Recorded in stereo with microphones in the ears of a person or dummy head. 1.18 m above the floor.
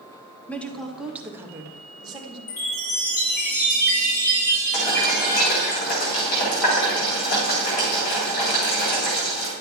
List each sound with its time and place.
0.5 s a woman speaking: 10° left (ahead or behind), 1.1 m; by 2.4 s 25° right (ahead or behind), 1.8 m
2.5 s a chime: 50° left (ahead or behind), 4 m
4.7 s boiling: 50° left (ahead or behind), 5 m